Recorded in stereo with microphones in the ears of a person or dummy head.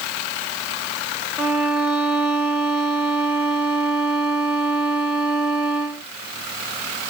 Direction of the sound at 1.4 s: 5° right (ahead or behind).